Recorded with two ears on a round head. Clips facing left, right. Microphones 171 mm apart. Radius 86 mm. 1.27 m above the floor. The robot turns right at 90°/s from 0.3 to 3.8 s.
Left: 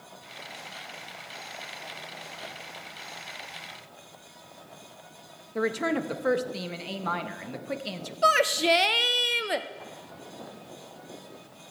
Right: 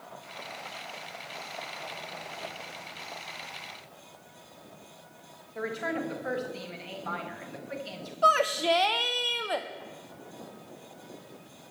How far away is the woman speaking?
About 1.2 m.